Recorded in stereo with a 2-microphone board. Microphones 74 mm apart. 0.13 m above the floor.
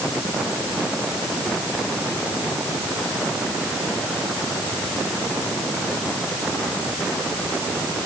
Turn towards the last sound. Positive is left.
No sound to turn to.